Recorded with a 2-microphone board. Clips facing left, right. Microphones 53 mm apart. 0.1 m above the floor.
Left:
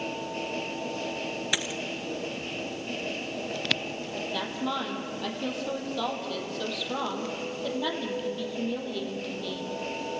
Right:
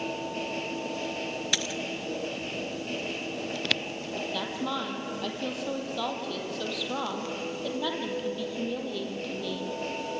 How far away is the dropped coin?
About 0.7 m.